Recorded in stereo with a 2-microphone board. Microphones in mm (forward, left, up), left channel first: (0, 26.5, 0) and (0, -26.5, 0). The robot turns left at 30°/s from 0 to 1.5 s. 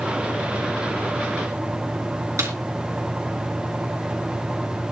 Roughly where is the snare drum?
Right.